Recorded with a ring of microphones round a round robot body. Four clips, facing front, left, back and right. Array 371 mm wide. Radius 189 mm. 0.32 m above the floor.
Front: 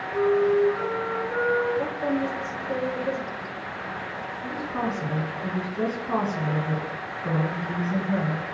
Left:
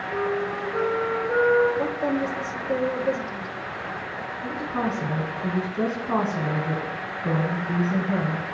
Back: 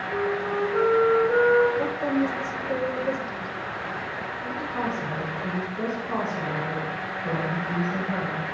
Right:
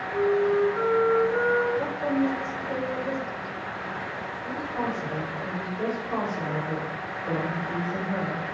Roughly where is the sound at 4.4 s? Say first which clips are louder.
Left 3 dB, front 1 dB; left.